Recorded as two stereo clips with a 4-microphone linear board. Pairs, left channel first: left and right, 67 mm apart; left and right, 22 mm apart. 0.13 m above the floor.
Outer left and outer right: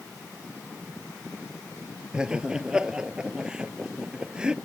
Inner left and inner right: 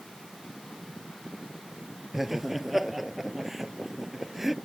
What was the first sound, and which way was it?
Laughter, 15° right (ahead or behind).